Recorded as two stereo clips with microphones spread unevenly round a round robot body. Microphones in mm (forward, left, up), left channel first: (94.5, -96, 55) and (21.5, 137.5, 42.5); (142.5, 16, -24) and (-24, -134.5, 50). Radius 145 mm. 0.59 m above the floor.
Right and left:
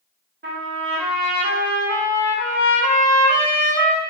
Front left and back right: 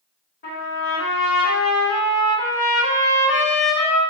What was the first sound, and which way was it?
A trumpet, 65° left.